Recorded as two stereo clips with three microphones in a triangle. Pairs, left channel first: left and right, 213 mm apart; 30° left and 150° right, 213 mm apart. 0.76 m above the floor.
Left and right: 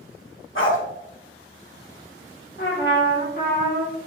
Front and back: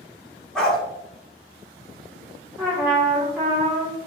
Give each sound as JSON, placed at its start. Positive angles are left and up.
{"t": 0.6, "sound": "a dog barking", "azimuth_deg": 115, "distance_m": 1.0}
{"t": 2.6, "sound": "a trumpet", "azimuth_deg": 130, "distance_m": 1.6}